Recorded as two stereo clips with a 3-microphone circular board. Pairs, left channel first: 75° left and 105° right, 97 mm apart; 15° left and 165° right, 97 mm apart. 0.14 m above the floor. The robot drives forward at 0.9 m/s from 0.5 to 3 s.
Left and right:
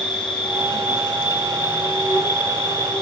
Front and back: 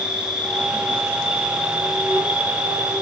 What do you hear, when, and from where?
0.0 s an insect: 95° left, 4 m; by 3.0 s 125° left, 5 m